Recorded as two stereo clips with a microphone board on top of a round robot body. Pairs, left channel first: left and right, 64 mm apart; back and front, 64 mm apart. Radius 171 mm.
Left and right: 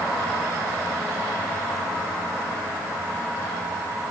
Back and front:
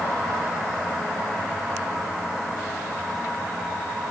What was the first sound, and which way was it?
Only background noise.